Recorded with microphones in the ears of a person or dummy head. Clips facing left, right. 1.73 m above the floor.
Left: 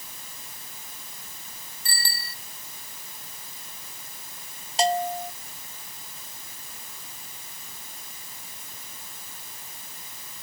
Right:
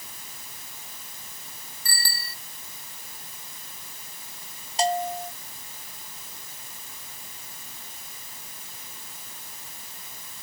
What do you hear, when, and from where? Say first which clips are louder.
1.9 s a bicycle bell: even; 25° left (ahead or behind)
4.8 s a bell: left 1 dB; 60° left (ahead or behind)